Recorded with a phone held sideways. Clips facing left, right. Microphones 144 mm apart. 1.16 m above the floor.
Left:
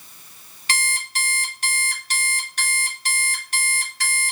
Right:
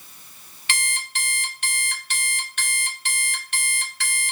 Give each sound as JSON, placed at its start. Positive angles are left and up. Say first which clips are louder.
{"t": 0.7, "sound": "an alarm clock", "louder": "left 3 dB", "side_deg": 40, "distance_m": 1.0}